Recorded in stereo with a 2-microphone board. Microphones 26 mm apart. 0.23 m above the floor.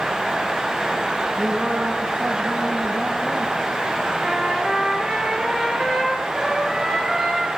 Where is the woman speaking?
70° right (ahead or behind), 8 m.